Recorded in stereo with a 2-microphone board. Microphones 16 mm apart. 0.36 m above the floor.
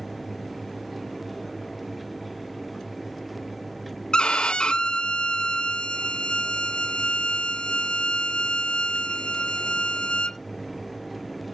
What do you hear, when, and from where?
4.1 s a violin: 65° left (ahead or behind), 0.5 m